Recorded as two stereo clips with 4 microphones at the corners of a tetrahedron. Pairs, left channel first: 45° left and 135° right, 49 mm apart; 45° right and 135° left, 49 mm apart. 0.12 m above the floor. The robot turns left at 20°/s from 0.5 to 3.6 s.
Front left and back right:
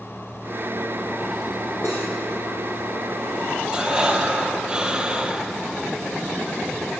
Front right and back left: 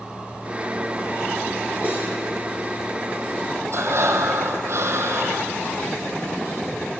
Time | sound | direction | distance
1.8 | cutlery clinking | 80° left | 2.5 m
3.7 | breathing | 155° left | 0.5 m